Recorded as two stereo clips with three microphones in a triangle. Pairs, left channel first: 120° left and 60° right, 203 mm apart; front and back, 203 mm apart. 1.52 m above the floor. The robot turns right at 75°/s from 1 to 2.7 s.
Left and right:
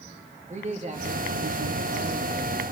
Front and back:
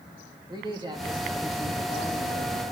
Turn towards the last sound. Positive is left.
turn(degrees=15)